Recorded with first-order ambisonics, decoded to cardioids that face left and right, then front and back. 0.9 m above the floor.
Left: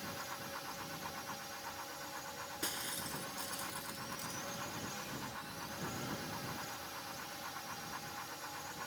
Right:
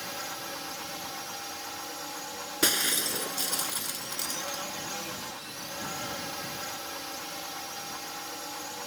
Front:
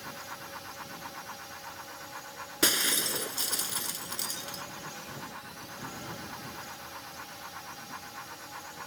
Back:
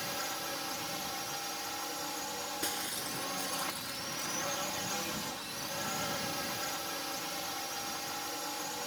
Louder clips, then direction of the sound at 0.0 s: Right 8 dB, back 5 dB; 130° right.